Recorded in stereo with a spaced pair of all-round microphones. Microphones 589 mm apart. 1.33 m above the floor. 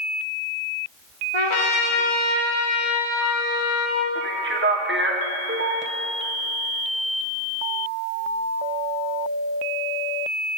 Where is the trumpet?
55° left (ahead or behind), 1.3 m.